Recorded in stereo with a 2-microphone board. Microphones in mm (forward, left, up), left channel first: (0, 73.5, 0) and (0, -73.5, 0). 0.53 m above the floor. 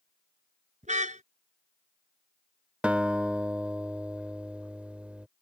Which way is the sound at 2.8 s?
10° right (ahead or behind).